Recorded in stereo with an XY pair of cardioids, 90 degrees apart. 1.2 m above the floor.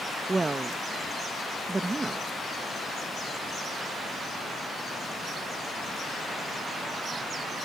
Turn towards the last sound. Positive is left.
turn(degrees=-25)